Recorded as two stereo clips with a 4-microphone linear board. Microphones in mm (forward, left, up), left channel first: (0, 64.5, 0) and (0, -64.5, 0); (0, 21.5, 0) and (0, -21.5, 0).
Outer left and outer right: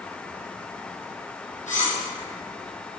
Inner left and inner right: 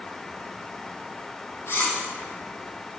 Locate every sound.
1.7 s cutlery clinking: 70° left (ahead or behind), 3.5 m